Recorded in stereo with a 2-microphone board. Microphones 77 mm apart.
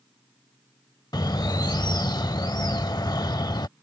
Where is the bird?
70° left (ahead or behind).